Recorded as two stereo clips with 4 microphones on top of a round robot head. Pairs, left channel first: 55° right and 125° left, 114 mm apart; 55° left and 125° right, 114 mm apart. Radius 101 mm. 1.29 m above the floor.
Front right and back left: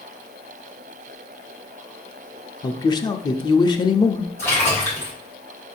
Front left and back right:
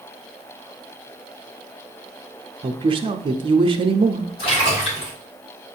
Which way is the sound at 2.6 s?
100° right.